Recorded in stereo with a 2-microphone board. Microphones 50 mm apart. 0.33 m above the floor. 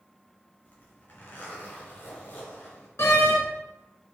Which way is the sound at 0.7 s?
40° left (ahead or behind).